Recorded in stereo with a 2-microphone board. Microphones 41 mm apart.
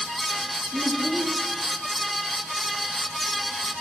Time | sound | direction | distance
0.7 | a child speaking | 35° left (ahead or behind) | 4 m